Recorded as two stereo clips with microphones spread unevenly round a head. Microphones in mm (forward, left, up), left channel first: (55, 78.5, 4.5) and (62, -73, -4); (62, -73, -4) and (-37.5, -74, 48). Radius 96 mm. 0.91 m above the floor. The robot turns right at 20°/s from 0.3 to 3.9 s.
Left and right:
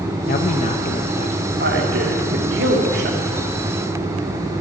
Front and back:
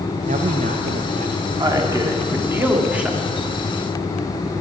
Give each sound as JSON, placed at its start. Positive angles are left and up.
{"t": 0.3, "sound": "a man speaking", "azimuth_deg": 130, "distance_m": 0.5}
{"t": 1.6, "sound": "a man speaking", "azimuth_deg": -125, "distance_m": 2.0}